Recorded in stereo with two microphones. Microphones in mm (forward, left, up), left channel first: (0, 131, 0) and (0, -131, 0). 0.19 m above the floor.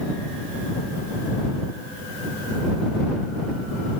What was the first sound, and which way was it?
Only background noise.